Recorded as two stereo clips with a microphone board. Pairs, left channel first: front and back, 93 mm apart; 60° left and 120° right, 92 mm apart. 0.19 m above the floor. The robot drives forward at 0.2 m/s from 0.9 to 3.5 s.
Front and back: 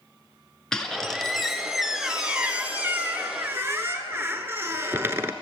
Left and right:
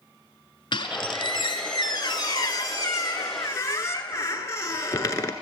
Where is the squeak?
80° left, 0.9 m; by 5.3 s 115° left, 1.0 m.